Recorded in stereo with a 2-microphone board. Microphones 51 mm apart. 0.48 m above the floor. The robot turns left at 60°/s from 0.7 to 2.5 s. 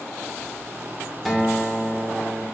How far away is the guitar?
About 0.6 m.